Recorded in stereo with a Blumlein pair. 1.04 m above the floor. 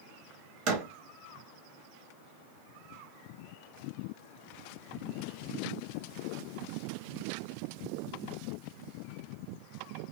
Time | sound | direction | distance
0.7 | a door slam | 40° right | 1.1 m